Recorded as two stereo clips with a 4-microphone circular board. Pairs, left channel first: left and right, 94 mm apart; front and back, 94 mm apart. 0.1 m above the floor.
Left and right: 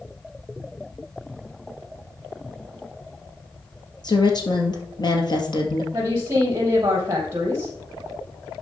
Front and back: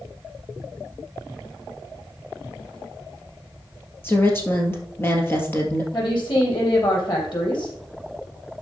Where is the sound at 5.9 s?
35° right, 4 m.